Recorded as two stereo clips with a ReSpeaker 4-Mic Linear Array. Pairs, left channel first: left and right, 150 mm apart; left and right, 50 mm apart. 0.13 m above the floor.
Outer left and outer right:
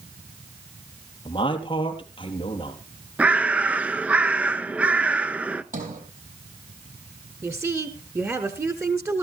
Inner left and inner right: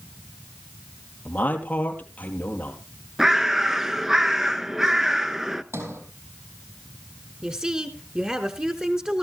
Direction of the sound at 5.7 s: 70° right (ahead or behind).